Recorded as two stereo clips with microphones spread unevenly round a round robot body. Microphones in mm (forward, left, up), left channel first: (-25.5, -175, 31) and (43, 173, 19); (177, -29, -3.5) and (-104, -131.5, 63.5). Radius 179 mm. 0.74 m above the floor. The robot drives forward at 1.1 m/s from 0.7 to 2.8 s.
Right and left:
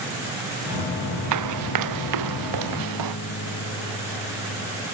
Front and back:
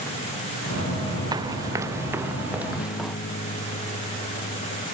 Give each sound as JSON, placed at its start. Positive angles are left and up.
{"t": 1.3, "sound": "running footsteps", "azimuth_deg": 120}
{"t": 2.7, "sound": "a guitar", "azimuth_deg": -40}